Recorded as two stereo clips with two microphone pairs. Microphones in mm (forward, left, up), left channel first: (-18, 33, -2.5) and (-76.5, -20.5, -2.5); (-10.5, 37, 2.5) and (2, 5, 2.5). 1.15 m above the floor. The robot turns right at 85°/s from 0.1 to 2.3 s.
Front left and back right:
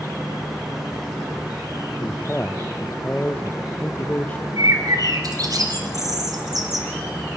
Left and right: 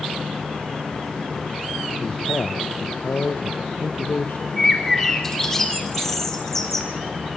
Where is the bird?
170° right, 3.5 m.